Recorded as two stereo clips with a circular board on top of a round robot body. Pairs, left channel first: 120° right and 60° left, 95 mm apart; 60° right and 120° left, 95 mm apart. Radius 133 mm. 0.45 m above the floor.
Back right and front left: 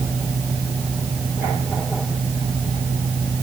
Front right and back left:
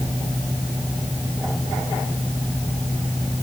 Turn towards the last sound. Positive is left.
No sound to turn to.